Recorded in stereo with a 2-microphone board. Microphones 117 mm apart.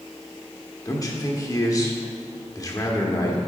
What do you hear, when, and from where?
0.8 s a man speaking: 30° left (ahead or behind), 1.1 m